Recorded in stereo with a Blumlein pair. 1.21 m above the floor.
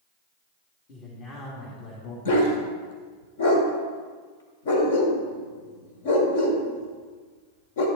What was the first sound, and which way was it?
A man speaking, 35° left.